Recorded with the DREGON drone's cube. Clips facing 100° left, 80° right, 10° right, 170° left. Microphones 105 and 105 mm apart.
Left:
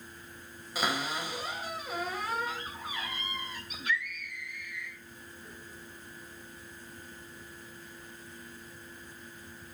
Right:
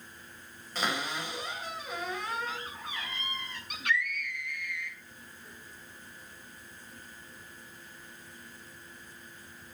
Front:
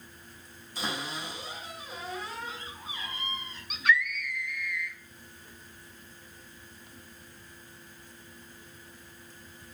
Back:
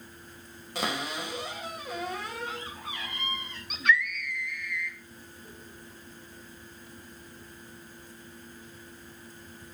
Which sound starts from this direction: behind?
A cupboard door, at 0.8 s.